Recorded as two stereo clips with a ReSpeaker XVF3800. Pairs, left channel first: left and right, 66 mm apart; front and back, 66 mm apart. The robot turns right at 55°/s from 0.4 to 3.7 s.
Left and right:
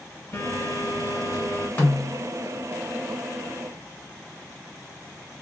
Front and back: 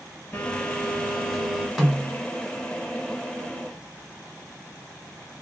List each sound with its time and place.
0.3 s a phone buzzing: 50° left, 1.6 m; by 1.7 s 120° left, 1.6 m
1.8 s a snare drum: 90° left, 1.7 m; by 2.2 s 115° left, 1.7 m